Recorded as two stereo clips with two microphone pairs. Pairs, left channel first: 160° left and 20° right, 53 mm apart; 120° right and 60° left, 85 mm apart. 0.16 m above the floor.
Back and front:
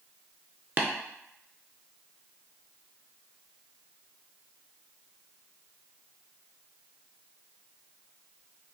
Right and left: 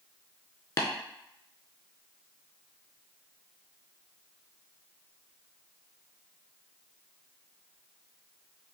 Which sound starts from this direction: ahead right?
Tapping, at 0.8 s.